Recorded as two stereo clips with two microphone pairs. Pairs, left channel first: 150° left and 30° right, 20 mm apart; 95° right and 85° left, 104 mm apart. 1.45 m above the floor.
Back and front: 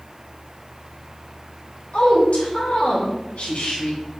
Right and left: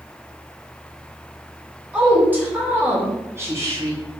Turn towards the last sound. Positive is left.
turn(degrees=145)